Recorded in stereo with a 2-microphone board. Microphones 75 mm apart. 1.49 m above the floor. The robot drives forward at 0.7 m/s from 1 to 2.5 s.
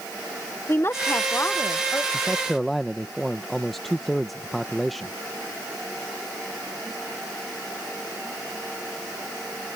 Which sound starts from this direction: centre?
A man speaking, at 2.1 s.